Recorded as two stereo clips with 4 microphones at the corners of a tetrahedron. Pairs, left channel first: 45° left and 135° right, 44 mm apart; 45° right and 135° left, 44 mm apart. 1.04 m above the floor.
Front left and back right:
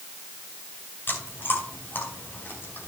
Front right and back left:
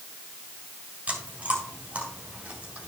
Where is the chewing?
80° left, 3.5 m.